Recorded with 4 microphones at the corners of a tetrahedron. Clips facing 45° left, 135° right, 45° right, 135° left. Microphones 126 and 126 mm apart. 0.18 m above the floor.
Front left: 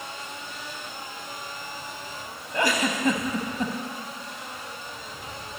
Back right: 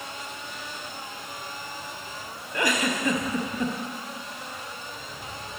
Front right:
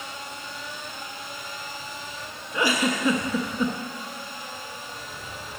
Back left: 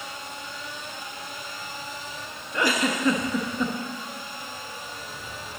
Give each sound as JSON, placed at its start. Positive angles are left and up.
{"t": 2.5, "sound": "a giggle", "azimuth_deg": 25, "distance_m": 0.9}